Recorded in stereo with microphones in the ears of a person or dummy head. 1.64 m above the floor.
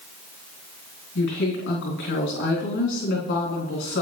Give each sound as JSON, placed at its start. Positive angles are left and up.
{"t": 1.1, "sound": "a woman speaking", "side_deg": 65, "distance_m": 3.0}